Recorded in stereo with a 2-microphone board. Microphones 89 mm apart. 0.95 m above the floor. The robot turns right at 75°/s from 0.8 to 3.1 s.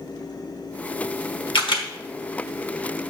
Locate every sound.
1.6 s a camera shutter: 75° left (ahead or behind), 1.2 m; by 1.9 s 60° left (ahead or behind), 1.2 m